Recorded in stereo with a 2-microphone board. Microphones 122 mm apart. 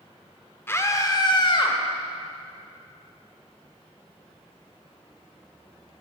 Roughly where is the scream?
Left.